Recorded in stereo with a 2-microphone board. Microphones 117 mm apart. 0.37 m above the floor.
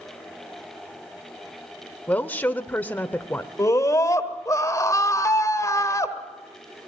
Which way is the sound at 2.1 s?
15° left (ahead or behind).